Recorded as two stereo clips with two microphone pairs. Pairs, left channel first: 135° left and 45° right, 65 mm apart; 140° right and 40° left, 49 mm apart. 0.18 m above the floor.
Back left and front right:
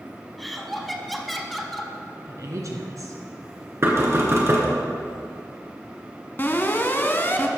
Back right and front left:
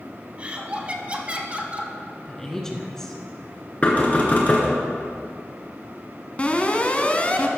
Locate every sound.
0.4 s laughter: 50° left, 1.1 m
2.2 s a woman speaking: 60° right, 1.9 m
3.8 s knocking: 85° right, 2.5 m
6.4 s an alarm: 175° left, 1.0 m